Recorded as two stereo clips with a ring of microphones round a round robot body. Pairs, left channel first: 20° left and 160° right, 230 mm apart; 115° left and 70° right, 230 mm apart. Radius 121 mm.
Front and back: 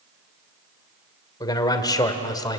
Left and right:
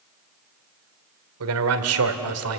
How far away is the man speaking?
About 2.0 m.